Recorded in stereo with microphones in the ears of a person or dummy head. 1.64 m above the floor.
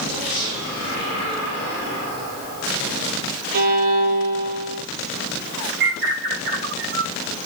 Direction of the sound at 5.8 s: 55° right (ahead or behind).